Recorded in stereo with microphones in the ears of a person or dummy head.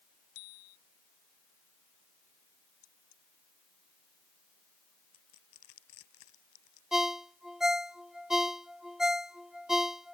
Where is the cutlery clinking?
90° left.